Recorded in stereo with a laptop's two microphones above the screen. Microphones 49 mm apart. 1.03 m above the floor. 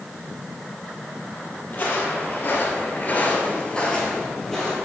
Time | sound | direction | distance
1.7 | footsteps | 40° left (ahead or behind) | 1.9 m